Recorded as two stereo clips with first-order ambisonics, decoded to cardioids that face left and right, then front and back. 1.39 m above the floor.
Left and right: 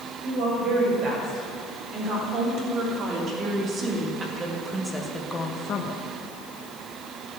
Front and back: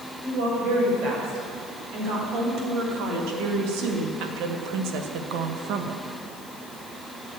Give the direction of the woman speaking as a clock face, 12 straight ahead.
5 o'clock.